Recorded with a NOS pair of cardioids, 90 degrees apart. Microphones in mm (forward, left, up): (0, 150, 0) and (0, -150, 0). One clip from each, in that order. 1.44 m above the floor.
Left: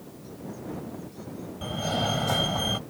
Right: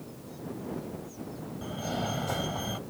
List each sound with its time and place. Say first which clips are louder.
1.6 s a fire alarm: left 6 dB; 40° left